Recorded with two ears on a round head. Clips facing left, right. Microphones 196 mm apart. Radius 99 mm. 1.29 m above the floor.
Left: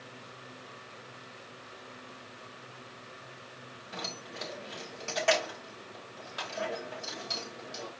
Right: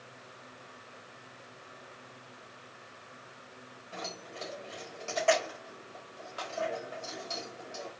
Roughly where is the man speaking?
No man speaking in this recording.